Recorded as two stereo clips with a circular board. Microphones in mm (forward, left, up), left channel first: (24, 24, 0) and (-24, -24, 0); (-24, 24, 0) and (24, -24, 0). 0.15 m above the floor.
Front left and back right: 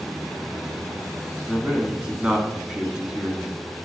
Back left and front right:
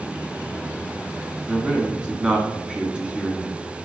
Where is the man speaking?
90° right, 1.3 m.